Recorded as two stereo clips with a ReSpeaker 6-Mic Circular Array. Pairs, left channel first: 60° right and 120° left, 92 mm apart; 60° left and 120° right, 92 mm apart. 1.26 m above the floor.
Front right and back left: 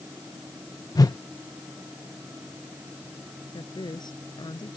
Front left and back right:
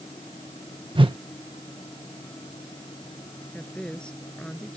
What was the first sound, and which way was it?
A whoosh, 105° right.